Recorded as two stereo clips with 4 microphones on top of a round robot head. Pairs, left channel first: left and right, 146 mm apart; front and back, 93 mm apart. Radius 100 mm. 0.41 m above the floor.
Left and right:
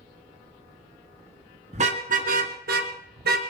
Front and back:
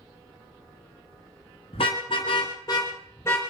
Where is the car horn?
40° right, 2 m; by 3.4 s 75° right, 3 m.